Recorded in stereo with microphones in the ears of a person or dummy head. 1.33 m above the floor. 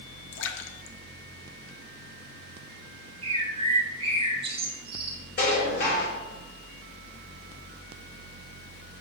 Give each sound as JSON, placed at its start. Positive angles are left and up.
{"t": 0.3, "sound": "a splash", "side_deg": 70, "distance_m": 1.1}
{"t": 3.2, "sound": "a bird", "side_deg": -25, "distance_m": 1.3}
{"t": 5.4, "sound": "dishes clattering", "side_deg": 60, "distance_m": 4.5}